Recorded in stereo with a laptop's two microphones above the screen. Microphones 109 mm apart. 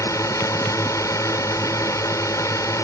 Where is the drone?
30° left (ahead or behind).